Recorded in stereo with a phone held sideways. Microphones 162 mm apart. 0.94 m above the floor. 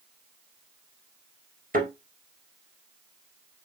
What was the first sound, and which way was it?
A thud, 65° right (ahead or behind).